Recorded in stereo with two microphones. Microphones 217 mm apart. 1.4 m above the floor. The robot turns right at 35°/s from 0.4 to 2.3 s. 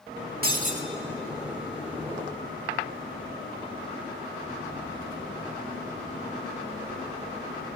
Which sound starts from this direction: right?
Breaking glass, at 0.4 s.